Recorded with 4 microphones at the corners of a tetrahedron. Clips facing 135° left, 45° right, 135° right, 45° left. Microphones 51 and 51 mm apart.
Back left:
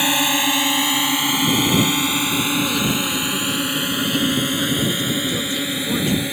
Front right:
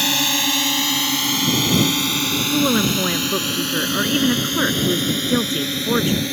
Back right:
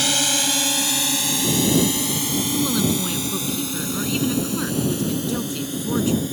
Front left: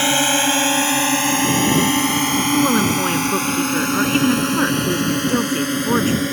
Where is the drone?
75° left; by 6.3 s 60° left.